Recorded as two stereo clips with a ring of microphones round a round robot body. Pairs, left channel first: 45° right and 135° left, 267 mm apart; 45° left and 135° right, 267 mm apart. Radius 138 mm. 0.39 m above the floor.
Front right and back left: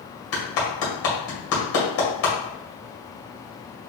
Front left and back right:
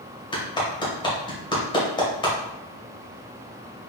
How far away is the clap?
About 1.9 m.